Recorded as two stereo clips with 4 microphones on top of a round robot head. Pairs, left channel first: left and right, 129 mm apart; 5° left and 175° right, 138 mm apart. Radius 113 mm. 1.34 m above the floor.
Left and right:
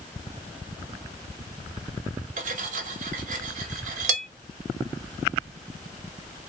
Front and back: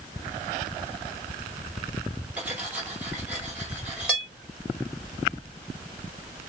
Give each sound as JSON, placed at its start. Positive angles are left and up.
{"t": 2.4, "sound": "cutlery clinking", "azimuth_deg": -90, "distance_m": 0.8}